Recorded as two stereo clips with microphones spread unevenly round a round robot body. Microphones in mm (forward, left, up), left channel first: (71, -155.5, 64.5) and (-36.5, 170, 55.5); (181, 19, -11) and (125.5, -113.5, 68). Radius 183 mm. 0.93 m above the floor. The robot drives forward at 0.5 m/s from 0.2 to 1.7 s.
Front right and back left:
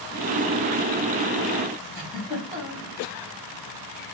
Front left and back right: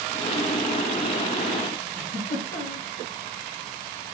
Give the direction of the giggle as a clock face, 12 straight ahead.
6 o'clock.